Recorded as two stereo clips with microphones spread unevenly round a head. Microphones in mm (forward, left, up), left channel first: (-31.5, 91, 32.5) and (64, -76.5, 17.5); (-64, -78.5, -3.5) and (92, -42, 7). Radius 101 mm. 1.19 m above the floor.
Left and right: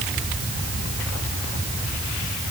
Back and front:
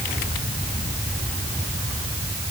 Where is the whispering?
No whispering in this recording.